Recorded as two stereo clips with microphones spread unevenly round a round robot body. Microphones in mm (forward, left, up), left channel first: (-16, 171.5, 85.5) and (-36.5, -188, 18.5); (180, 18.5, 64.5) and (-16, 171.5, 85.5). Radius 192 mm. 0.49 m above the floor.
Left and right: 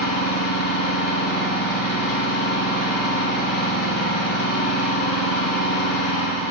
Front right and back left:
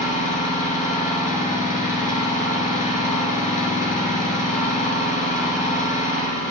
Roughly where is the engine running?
Ahead left.